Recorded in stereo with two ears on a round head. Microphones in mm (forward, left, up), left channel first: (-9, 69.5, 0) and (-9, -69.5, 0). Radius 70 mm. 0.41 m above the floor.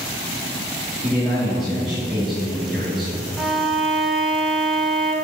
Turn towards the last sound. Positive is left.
turn(degrees=-5)  # may be behind; listen again after turning